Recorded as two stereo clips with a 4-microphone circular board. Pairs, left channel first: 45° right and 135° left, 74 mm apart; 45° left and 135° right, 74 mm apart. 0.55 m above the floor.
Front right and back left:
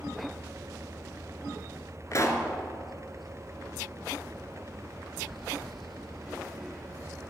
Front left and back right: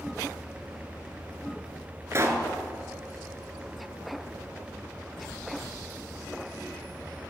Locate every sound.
2.1 s a pop: 85° right, 1.2 m